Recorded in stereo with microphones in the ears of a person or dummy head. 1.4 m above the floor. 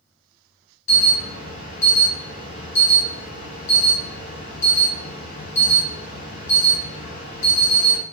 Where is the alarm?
40° left (ahead or behind), 1.3 m.